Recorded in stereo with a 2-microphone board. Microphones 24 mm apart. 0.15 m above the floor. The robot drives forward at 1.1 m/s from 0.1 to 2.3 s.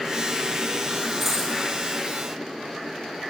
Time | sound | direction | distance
1.2 | a dropped coin | 5° right (ahead or behind) | 4 m